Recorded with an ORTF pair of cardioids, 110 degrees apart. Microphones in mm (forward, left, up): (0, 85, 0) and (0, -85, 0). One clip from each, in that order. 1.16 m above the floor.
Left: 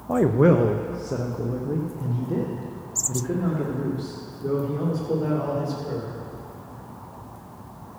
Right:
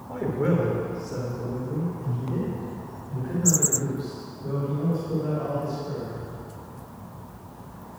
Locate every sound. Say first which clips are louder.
0.1 s a man speaking: left 8 dB; 60° left, 0.6 m; by 6.2 s 70° left, 3.5 m